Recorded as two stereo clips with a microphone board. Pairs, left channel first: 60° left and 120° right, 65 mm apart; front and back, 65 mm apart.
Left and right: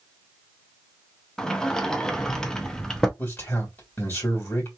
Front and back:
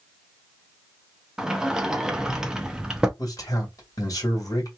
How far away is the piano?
No piano in this recording.